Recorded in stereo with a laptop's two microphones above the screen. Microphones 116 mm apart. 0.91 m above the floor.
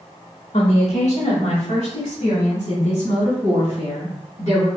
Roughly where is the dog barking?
No dog barking in this recording.